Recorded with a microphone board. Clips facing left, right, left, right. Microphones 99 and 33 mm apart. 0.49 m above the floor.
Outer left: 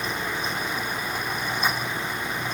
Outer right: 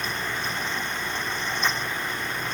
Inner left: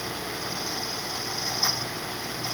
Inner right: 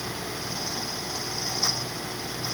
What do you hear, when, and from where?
Only background noise.